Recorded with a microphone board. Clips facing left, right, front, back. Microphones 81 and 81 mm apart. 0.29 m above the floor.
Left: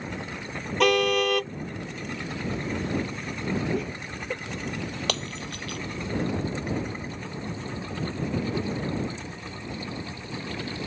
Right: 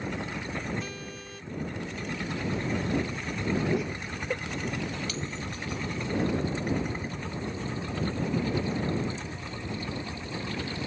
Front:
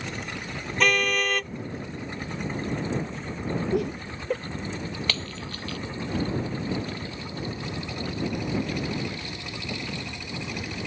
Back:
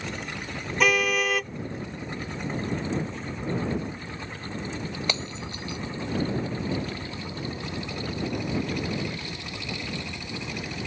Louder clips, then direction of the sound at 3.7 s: Even, front 5 dB; 5° right.